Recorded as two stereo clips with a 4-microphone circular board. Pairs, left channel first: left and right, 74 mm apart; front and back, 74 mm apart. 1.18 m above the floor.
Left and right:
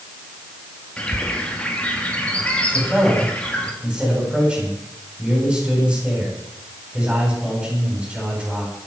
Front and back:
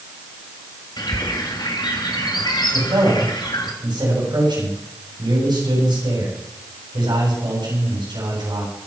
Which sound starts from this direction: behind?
A man speaking, at 2.7 s.